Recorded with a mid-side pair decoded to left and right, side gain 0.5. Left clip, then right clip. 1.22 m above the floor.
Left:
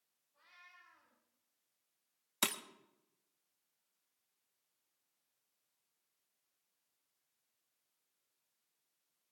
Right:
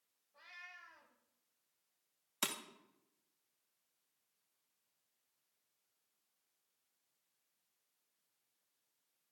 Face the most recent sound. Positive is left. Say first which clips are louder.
# left 4 dB
turn(degrees=30)